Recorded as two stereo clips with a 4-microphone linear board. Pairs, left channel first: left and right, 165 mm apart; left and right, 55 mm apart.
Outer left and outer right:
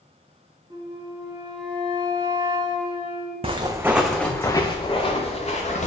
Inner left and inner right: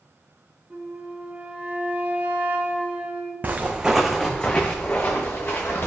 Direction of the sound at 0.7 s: 30° right (ahead or behind).